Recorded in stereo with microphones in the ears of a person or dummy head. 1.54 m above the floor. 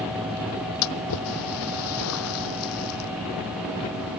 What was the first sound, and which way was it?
A splash, 85° left.